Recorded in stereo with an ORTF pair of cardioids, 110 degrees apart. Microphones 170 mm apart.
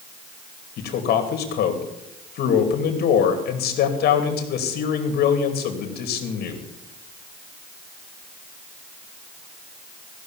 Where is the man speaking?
65° left, 2.5 m.